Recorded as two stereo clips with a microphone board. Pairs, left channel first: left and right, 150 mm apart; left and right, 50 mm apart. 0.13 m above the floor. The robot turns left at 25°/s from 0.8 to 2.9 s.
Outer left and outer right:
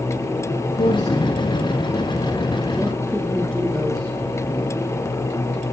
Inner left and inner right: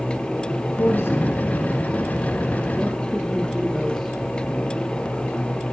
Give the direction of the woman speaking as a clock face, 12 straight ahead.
10 o'clock.